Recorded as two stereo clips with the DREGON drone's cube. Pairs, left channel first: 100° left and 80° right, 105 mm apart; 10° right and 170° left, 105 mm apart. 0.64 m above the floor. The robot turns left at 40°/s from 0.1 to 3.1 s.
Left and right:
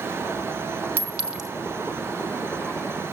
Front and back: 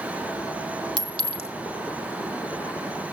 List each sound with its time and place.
1.0 s a clink: 150° right, 1.7 m; by 1.5 s 170° right, 1.7 m